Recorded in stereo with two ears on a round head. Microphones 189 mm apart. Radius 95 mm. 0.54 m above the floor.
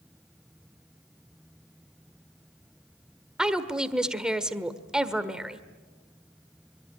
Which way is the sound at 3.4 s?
5° right (ahead or behind).